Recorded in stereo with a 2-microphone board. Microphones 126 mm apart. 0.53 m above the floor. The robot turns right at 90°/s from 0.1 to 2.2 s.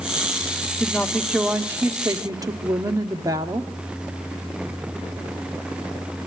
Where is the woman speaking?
20° left (ahead or behind), 1.0 m; by 3.7 s 25° right (ahead or behind), 1.0 m.